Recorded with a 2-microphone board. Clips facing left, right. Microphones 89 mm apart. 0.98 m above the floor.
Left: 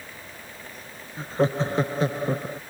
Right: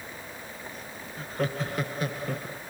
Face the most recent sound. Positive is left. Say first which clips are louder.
# left 7 dB
turn(degrees=30)  # may be behind; listen again after turning